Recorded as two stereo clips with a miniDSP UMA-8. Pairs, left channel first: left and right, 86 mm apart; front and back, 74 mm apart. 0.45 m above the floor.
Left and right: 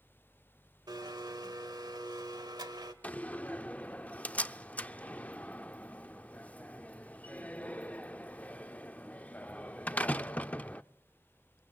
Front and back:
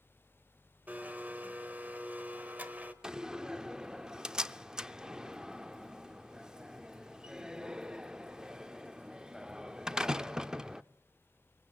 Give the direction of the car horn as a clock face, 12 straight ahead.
I don't hear a car horn.